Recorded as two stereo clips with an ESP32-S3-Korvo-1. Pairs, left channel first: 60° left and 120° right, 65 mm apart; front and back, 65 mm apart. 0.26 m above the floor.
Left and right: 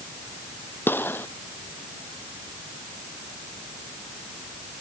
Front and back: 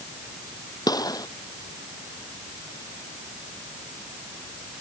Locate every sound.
0.9 s a gunshot: 5° left